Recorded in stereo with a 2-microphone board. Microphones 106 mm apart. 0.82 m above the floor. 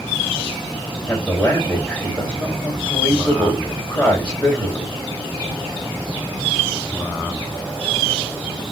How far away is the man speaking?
About 3 m.